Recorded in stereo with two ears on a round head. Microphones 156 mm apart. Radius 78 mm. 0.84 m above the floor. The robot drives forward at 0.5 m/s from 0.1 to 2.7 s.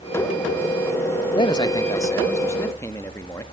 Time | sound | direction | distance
1.4 | a man speaking | 25° left (ahead or behind) | 0.8 m